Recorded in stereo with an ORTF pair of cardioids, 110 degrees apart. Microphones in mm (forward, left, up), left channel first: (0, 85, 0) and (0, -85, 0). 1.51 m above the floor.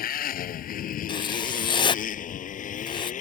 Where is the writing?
30° left.